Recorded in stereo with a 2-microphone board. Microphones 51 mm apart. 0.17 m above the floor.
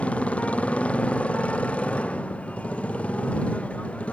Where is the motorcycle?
25° left (ahead or behind).